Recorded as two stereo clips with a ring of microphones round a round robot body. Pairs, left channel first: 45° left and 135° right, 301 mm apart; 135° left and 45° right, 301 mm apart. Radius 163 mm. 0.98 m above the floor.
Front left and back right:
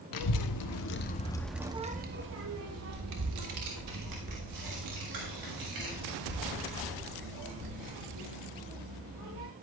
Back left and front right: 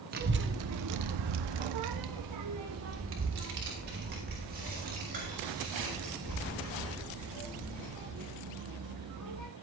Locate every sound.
0.1 s a child speaking: 20° left, 1.2 m; by 9.4 s 115° right, 6.5 m